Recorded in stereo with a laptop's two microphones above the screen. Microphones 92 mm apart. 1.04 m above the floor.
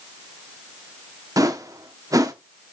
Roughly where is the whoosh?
Right.